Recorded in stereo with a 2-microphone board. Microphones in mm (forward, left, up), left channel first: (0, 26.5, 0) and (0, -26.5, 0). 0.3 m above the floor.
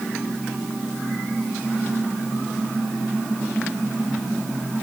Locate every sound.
Only background noise.